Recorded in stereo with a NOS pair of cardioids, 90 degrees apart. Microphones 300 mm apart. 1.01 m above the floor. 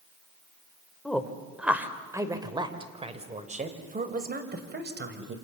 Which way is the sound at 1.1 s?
5° left.